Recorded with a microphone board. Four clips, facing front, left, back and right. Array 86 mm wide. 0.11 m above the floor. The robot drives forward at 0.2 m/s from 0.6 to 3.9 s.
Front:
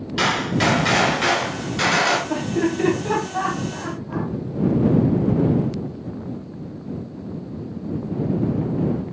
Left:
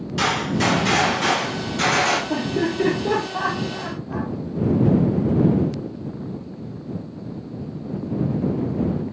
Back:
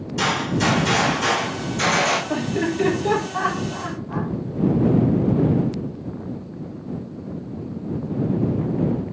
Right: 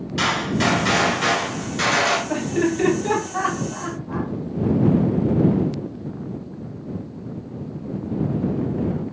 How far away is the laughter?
About 1.4 m.